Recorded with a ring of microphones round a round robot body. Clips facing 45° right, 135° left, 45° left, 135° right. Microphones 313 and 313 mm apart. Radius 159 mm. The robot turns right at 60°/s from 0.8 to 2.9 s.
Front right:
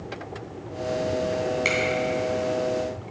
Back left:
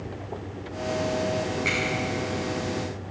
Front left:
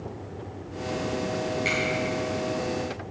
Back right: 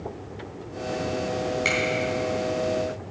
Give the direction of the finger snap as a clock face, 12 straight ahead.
2 o'clock.